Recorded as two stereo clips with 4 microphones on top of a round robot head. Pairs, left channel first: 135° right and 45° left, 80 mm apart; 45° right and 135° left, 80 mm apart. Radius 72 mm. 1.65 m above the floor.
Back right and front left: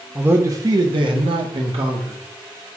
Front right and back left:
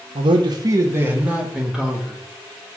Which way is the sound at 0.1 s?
120° left.